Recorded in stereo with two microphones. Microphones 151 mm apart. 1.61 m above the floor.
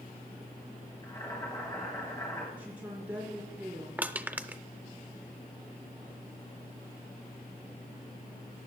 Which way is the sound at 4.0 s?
10° right (ahead or behind).